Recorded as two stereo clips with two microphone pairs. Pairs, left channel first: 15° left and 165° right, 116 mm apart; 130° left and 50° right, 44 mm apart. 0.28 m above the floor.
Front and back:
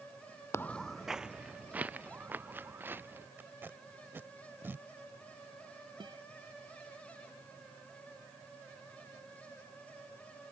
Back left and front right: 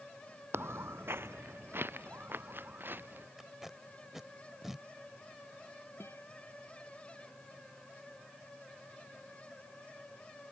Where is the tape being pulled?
130° right.